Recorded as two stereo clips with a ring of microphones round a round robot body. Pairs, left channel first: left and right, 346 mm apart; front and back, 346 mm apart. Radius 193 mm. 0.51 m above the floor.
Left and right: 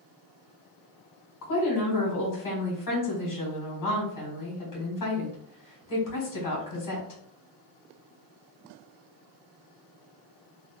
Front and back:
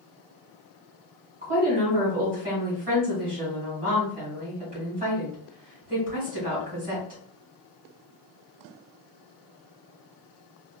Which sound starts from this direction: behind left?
A woman speaking, at 1.4 s.